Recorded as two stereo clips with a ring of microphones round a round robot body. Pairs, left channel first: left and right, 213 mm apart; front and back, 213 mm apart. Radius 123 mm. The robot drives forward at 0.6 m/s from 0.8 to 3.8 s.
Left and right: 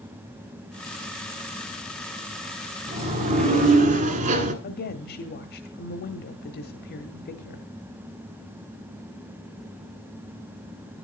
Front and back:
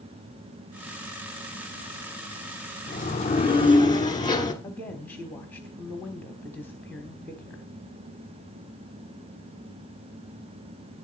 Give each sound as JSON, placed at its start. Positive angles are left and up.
{"t": 2.9, "sound": "a sliding door", "azimuth_deg": -45, "distance_m": 2.0}
{"t": 4.6, "sound": "a woman speaking", "azimuth_deg": 80, "distance_m": 1.0}